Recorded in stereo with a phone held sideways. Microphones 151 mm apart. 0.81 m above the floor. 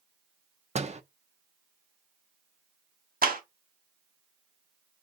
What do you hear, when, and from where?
0.8 s a door slam: 45° right (ahead or behind), 0.5 m
3.2 s a clap: 65° right (ahead or behind), 1.0 m